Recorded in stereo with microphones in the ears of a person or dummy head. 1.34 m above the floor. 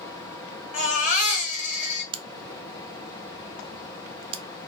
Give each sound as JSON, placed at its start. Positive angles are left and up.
{"t": 0.7, "sound": "a baby crying", "side_deg": 40, "distance_m": 1.8}
{"t": 2.1, "sound": "a crack", "side_deg": -35, "distance_m": 0.7}